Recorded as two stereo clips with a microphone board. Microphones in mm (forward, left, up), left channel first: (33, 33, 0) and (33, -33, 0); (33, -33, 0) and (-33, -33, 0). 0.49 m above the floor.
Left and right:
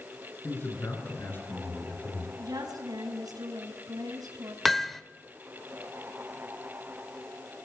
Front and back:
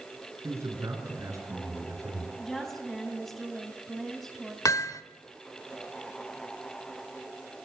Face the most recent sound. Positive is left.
turn(degrees=5)